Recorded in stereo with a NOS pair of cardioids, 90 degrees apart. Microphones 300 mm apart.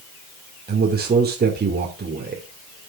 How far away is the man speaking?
About 2.5 m.